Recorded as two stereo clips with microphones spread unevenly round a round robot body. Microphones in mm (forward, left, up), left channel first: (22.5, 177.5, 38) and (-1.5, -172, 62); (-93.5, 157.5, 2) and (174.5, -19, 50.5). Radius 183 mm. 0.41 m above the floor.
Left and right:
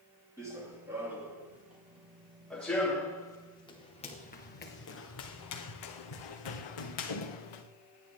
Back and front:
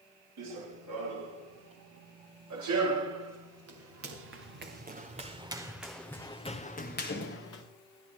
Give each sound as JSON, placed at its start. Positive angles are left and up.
{"t": 0.4, "sound": "running footsteps", "azimuth_deg": -10, "distance_m": 6.0}